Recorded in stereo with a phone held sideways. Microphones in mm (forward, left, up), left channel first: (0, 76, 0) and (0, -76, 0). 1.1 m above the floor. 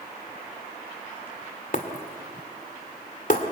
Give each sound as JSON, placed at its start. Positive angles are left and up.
{"t": 1.7, "sound": "breaking glass", "side_deg": 60, "distance_m": 2.0}